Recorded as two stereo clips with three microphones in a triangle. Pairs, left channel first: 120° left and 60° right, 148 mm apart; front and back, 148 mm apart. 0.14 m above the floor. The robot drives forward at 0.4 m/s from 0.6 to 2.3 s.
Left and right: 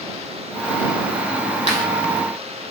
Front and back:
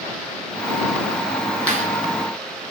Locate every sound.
1.7 s a clap: 80° left, 5 m